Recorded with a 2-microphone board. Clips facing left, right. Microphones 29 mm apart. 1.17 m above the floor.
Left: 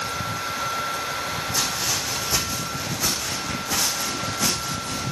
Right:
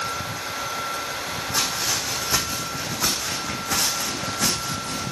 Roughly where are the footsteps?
Right.